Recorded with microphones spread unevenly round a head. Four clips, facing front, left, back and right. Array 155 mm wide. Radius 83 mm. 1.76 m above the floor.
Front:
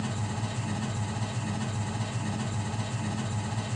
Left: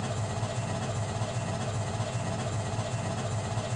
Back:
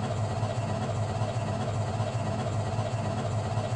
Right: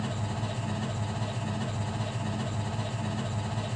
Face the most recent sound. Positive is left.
turn(degrees=150)